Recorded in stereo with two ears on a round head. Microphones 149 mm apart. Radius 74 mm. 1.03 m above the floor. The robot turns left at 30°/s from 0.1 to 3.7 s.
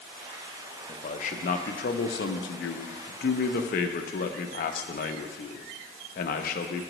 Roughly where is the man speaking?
Behind left.